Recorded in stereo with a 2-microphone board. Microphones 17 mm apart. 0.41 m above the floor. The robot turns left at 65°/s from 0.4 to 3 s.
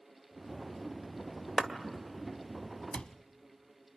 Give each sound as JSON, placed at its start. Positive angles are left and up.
{"t": 1.6, "sound": "a clap", "side_deg": -35, "distance_m": 1.7}
{"t": 2.9, "sound": "a cupboard door", "side_deg": 80, "distance_m": 0.9}